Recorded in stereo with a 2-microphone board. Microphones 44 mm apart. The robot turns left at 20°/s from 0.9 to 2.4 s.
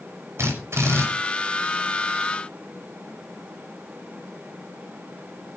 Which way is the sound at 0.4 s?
75° right (ahead or behind).